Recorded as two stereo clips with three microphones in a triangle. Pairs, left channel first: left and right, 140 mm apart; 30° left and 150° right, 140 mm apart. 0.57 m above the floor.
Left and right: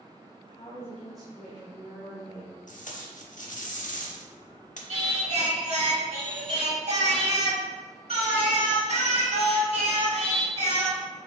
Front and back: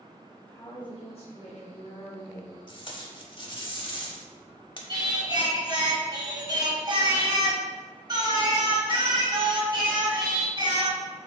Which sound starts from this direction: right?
Singing, at 4.9 s.